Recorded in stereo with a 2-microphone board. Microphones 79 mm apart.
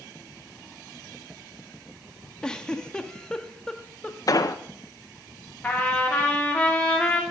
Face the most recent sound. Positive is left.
turn(degrees=15)  # may be behind; listen again after turning